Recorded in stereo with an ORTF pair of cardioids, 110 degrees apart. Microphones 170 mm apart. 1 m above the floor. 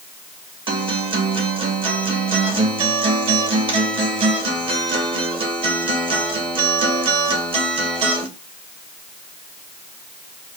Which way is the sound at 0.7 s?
30° right.